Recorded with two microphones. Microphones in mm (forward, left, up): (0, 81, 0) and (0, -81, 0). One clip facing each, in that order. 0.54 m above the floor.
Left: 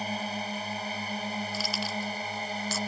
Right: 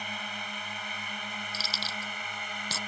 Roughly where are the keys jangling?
Right.